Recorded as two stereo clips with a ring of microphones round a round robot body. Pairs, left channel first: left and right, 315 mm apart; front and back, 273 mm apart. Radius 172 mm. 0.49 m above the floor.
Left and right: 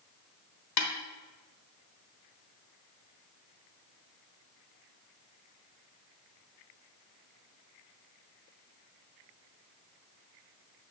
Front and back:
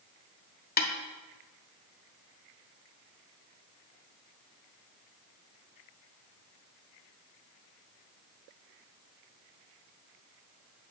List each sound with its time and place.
0.8 s a snare drum: 55° left, 1.2 m